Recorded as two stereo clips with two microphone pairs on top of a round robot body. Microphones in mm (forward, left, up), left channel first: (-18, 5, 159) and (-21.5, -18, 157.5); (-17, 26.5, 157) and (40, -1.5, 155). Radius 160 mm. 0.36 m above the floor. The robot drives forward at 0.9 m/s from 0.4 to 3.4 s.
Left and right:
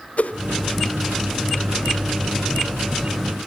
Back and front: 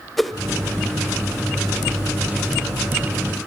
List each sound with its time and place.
0.2 s a whoosh: 65° left, 1.5 m